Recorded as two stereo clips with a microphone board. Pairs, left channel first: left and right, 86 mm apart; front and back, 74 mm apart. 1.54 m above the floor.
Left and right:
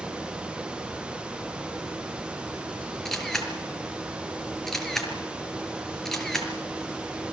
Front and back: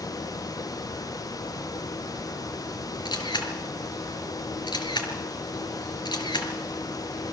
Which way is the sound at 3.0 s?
5° left.